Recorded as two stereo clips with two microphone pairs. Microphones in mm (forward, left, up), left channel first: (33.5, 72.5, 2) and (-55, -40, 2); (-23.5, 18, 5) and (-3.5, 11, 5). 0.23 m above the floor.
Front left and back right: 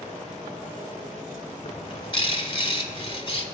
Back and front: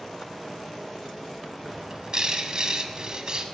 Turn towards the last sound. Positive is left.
turn(degrees=15)